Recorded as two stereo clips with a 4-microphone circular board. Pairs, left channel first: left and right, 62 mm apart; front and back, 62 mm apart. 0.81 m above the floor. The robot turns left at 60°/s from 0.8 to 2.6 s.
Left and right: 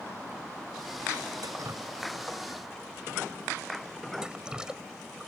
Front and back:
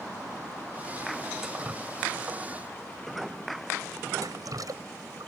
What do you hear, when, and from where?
1.4 s dripping: 100° right; by 5.3 s 170° right